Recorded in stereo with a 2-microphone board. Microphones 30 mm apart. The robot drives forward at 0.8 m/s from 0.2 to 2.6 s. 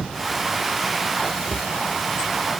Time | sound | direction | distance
1.5 | a cupboard door | 50° left (ahead or behind) | ?